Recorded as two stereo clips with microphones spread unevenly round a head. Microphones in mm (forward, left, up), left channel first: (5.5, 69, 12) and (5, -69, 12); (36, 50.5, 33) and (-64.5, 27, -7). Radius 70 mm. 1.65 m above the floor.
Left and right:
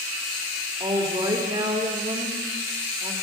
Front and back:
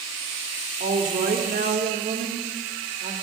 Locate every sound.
0.8 s a woman speaking: 155° right, 3.5 m